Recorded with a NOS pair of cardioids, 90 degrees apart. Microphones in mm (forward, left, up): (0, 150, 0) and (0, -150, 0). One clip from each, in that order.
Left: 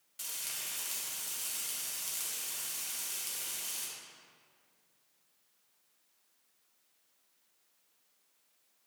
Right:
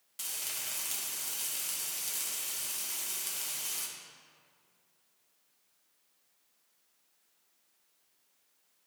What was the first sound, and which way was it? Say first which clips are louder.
Frying: right 2 dB; 20° right.